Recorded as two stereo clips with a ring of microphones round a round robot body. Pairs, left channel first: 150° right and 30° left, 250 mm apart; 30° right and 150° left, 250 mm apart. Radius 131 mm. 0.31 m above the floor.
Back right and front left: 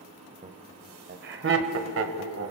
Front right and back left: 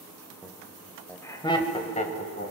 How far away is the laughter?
About 1.1 m.